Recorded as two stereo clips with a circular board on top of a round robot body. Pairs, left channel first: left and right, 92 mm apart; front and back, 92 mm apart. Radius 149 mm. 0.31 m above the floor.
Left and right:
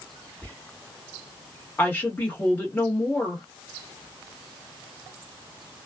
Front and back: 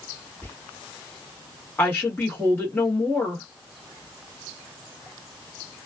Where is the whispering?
40° left, 1.4 m.